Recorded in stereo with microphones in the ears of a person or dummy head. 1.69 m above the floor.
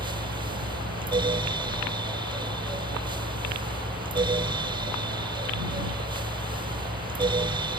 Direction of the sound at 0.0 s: 20° right (ahead or behind).